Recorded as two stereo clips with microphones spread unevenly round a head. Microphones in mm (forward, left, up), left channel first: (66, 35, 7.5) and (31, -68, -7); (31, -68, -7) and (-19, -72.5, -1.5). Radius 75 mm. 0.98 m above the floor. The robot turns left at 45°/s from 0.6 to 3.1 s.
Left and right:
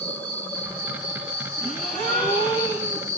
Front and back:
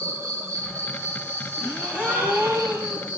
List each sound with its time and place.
0.0 s an insect: 155° left, 2.5 m; by 3.2 s 40° left, 2.5 m
1.6 s a gasp: 175° left, 5.5 m; by 3.1 s 110° left, 5.5 m